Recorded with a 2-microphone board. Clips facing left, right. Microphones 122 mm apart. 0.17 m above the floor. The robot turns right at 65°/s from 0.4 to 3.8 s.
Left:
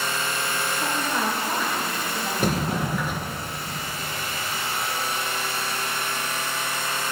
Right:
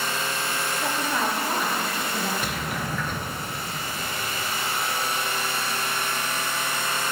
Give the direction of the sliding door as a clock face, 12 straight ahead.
8 o'clock.